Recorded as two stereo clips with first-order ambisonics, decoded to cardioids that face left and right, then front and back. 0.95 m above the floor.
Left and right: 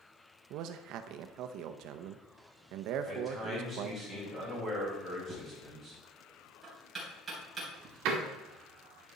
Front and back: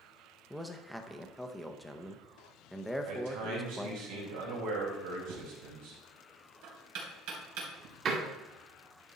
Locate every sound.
0.5 s a man speaking: 90° right, 0.7 m
3.1 s a man speaking: 170° left, 4.5 m
5.3 s knocking: 170° right, 3.5 m
8.1 s a door slam: 125° right, 2 m